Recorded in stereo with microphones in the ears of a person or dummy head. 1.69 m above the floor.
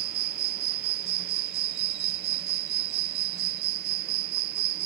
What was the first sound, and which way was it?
An insect, 55° right (ahead or behind).